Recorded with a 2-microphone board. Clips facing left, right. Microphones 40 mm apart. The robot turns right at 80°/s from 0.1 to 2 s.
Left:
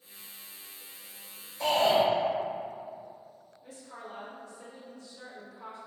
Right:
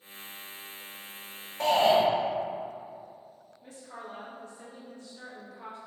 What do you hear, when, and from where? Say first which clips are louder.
1.6 s a shout: right 2 dB; 125° right, 1.2 m; by 2.0 s 90° right, 1.2 m
3.6 s a woman speaking: right 2 dB; 45° right (ahead or behind), 1.2 m